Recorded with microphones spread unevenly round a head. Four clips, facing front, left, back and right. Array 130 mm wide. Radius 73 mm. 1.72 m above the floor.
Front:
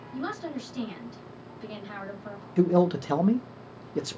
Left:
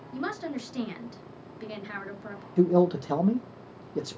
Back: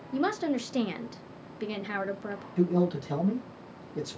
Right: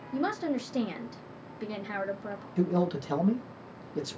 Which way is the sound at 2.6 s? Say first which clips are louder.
Left 6 dB, front 4 dB; 50° left.